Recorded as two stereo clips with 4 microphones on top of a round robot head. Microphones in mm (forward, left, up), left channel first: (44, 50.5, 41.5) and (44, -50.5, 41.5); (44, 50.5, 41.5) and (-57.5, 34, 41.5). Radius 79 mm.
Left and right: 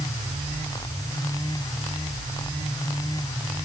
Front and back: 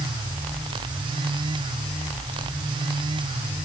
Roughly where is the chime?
I don't hear a chime.